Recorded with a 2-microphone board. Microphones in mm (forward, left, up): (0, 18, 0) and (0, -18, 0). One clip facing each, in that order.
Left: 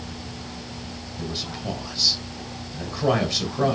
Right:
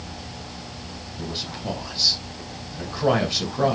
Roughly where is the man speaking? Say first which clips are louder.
Even; centre.